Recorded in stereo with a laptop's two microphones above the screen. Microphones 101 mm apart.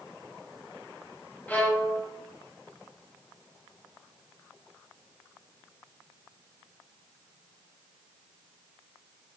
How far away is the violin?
About 0.5 m.